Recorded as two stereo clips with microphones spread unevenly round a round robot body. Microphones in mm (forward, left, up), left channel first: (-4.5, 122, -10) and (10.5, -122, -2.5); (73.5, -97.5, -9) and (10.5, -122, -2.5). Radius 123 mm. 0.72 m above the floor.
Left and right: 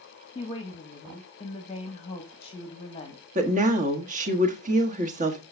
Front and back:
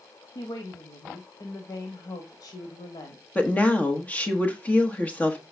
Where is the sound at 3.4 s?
35° right, 1.4 m.